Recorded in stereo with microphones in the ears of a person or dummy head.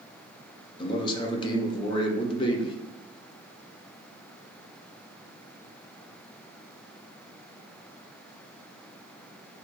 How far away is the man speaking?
About 0.7 m.